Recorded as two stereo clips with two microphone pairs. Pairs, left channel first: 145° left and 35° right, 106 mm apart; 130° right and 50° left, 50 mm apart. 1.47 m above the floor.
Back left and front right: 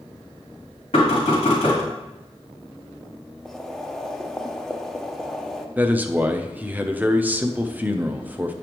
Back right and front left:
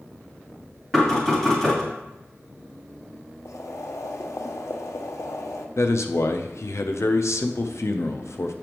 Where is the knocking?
150° left, 3.5 m.